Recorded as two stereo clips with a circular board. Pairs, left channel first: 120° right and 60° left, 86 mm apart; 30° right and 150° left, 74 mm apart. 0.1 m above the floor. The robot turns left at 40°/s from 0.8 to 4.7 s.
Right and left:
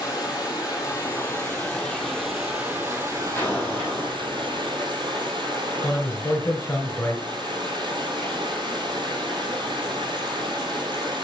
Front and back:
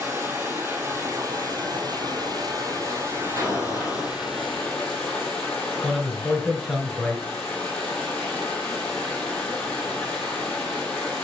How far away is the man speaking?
About 1.6 m.